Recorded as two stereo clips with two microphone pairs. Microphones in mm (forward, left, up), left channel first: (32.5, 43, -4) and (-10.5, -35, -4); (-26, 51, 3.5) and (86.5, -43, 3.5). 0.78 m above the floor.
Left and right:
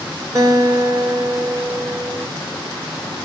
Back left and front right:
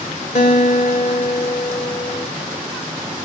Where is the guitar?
Straight behind, 2.5 m.